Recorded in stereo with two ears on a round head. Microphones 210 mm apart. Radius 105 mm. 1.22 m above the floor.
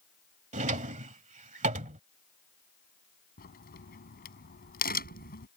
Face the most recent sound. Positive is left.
turn(degrees=40)  # may be behind; listen again after turning